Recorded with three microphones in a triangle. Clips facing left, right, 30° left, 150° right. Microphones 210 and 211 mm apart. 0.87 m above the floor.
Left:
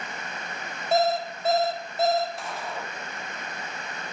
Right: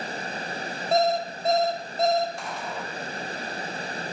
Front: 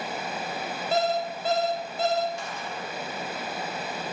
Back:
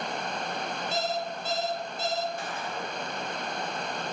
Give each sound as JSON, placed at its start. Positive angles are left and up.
{"t": 0.9, "sound": "an alarm clock", "azimuth_deg": 5, "distance_m": 1.2}
{"t": 2.4, "sound": "a gunshot", "azimuth_deg": 180, "distance_m": 2.5}